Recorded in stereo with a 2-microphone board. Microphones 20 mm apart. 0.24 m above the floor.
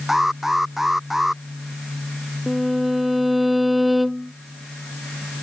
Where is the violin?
10° right (ahead or behind).